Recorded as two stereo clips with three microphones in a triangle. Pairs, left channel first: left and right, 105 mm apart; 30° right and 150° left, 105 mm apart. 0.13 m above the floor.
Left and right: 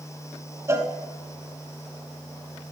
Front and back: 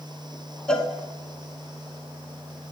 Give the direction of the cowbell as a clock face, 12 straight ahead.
3 o'clock.